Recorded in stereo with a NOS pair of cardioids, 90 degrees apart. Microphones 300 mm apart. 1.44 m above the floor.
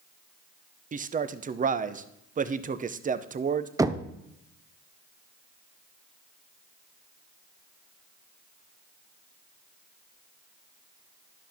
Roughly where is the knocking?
Ahead.